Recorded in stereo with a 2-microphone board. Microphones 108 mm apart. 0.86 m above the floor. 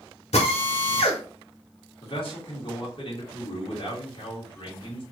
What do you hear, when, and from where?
0.3 s a drill: 85° left, 1.2 m
2.0 s a man speaking: 55° left (ahead or behind), 2.0 m